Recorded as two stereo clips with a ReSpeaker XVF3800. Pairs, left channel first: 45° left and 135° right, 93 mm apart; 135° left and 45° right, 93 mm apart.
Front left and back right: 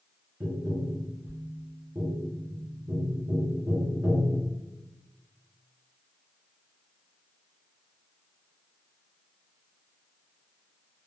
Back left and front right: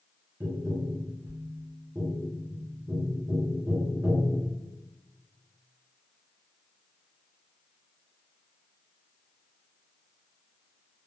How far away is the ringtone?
No ringtone in this recording.